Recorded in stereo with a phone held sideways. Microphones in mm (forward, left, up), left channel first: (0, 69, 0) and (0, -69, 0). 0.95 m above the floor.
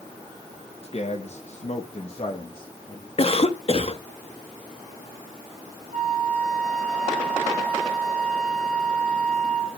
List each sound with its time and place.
0.8 s a man speaking: 45° left (ahead or behind), 1.3 m; by 3.1 s 30° left (ahead or behind), 1.9 m
3.2 s a cough: 45° left (ahead or behind), 1.1 m
5.9 s a flute: 75° right (ahead or behind), 4 m